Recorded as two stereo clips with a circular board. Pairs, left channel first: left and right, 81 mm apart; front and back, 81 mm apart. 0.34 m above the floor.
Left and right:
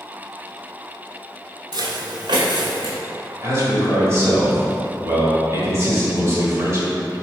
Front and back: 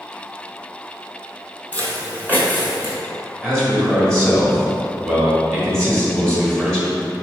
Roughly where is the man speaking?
Right.